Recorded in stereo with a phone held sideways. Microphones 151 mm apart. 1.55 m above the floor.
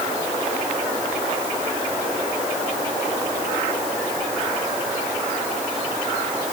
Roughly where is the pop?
I don't hear a pop.